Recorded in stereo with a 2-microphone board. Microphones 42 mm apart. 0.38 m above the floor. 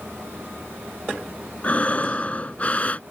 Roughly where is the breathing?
Left.